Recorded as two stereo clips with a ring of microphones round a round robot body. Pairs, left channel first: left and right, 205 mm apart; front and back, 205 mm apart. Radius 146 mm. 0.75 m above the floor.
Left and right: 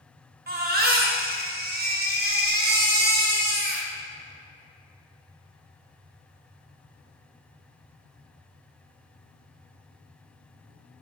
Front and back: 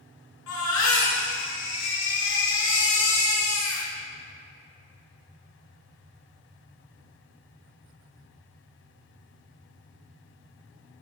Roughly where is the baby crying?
Ahead right.